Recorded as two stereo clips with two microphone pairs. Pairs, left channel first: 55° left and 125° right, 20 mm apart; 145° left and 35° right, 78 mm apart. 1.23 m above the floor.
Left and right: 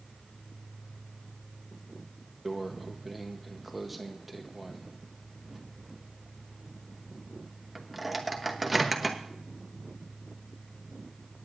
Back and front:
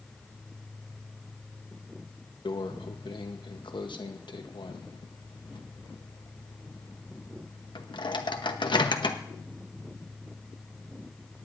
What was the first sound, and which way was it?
A microwave, 150° left.